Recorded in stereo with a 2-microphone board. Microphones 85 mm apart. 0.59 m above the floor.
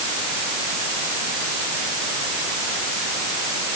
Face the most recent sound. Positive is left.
No sound to turn to.